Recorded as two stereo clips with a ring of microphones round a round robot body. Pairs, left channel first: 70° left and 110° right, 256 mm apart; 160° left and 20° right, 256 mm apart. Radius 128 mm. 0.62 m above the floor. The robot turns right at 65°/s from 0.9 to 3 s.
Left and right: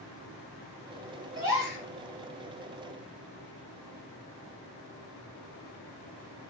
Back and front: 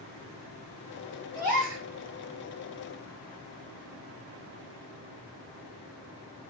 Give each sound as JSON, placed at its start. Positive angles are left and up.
{"t": 1.4, "sound": "a gasp", "azimuth_deg": -40, "distance_m": 1.9}